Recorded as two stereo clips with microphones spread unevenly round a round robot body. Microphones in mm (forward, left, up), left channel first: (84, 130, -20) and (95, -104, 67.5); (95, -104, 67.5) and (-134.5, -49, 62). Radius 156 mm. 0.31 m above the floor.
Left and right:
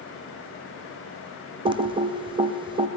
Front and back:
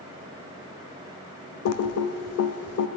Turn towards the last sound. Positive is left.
turn(degrees=-5)